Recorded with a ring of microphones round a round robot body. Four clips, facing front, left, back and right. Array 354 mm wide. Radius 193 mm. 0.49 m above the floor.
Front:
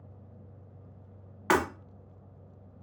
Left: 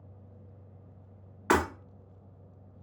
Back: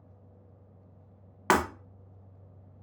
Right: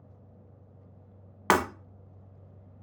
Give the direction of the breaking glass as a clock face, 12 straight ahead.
4 o'clock.